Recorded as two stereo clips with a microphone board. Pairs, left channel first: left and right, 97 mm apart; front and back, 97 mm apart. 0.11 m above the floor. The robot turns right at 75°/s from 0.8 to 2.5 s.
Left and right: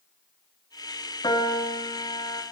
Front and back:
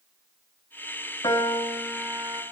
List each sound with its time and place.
1.2 s a piano: 45° left, 4 m; by 2.4 s 135° left, 4 m